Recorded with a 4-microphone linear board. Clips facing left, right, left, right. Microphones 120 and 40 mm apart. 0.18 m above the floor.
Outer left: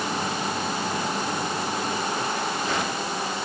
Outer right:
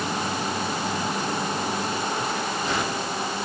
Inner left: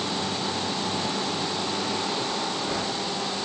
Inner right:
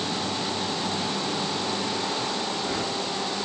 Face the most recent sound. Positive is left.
No sound to turn to.